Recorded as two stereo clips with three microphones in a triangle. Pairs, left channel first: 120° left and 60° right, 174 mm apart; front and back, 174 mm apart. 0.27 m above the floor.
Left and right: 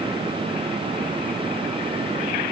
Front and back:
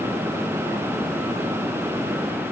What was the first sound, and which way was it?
Only background noise.